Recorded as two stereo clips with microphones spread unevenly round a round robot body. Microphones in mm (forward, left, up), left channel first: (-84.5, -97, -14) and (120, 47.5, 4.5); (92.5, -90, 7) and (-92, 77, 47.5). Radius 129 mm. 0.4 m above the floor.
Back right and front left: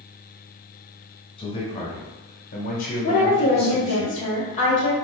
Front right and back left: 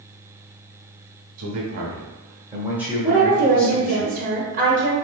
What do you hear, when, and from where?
1.4 s a man speaking: 155° left, 1.5 m; by 4.0 s 85° right, 1.7 m
3.0 s a woman speaking: 175° right, 1.1 m